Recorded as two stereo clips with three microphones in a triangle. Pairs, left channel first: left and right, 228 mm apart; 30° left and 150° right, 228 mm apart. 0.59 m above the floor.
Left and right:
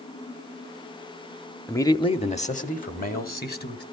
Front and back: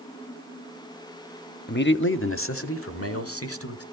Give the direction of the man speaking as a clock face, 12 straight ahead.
12 o'clock.